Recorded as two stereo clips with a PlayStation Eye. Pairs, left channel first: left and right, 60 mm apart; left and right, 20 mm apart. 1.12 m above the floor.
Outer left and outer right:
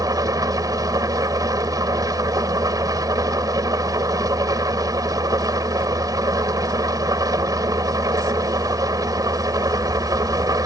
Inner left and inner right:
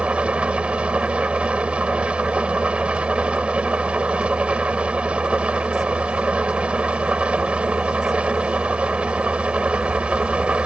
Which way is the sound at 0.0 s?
85° right.